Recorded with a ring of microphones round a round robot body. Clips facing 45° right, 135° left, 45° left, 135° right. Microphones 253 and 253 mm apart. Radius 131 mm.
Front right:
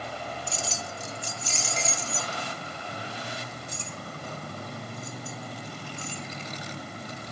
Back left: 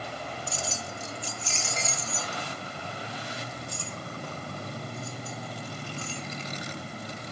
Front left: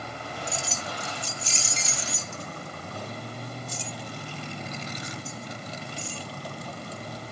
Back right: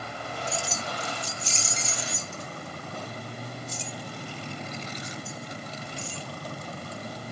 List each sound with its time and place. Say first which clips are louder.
0.5 s keys jangling: even, back right 3 dB; 35° right, 0.5 m; by 6.3 s 30° left, 3.5 m